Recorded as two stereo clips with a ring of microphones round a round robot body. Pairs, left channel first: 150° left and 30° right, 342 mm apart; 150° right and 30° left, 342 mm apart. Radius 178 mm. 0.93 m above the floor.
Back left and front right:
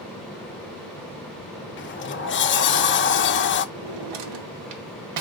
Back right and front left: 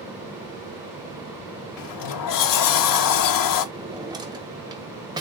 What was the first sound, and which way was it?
A sliding door, 155° right.